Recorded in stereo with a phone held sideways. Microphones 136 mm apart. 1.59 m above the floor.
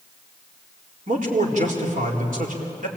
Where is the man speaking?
65° right (ahead or behind), 4 m.